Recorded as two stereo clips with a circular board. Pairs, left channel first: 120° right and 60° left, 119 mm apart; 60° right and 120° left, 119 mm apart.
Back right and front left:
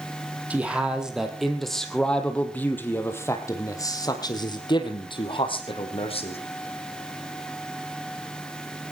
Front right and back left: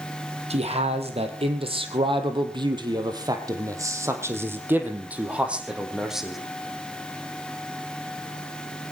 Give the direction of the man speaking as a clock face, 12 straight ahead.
7 o'clock.